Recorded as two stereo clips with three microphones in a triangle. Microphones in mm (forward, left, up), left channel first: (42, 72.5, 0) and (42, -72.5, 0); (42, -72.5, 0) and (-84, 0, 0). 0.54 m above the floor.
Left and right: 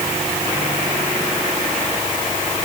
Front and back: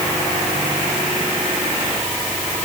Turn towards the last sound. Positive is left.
No sound to turn to.